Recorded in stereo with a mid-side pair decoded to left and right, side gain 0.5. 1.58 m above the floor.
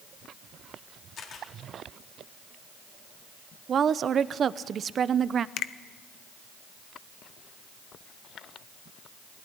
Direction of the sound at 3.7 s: 45° right.